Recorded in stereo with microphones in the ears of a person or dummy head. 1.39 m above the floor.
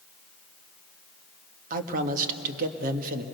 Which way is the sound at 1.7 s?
55° right (ahead or behind).